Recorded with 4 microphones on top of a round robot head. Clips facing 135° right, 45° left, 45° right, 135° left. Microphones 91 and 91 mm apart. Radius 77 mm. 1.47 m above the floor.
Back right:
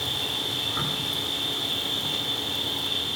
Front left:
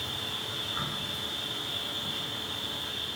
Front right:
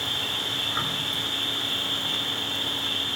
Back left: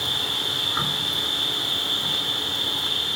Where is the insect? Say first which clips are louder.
Back right 6 dB, back left 2 dB; 150° right, 1.8 m.